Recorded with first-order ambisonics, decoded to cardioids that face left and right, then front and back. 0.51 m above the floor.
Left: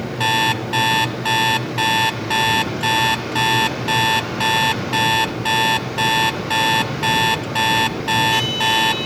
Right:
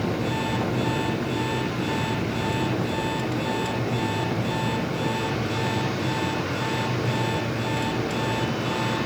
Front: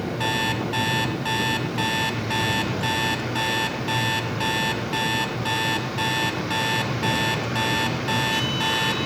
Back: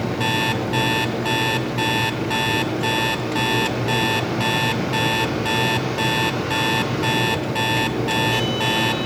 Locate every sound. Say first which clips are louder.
0.2 s an alarm clock: left 9 dB, back 2 dB; 85° left, 1.9 m